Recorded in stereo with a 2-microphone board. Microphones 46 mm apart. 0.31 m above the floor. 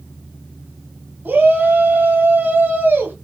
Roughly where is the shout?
Right.